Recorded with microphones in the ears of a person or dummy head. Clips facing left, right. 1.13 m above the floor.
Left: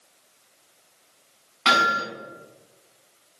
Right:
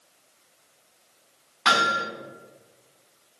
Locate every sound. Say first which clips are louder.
1.6 s hammering: left 1 dB; centre (ahead or behind), 1.4 m